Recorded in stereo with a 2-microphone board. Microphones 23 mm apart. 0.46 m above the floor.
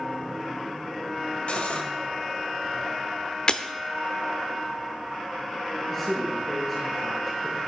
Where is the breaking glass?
40° left (ahead or behind), 0.7 m.